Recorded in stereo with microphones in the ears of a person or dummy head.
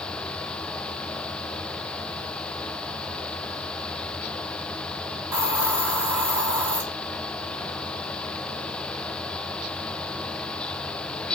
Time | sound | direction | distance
5.3 | a hiss | 10° right (ahead or behind) | 1.4 m